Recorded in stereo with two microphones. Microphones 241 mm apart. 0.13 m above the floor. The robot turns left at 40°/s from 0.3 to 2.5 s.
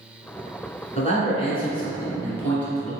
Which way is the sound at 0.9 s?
30° left (ahead or behind).